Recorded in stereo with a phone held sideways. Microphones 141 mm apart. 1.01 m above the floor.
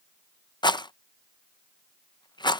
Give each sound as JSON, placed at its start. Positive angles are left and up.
{"t": 0.6, "sound": "a rattle", "side_deg": 30}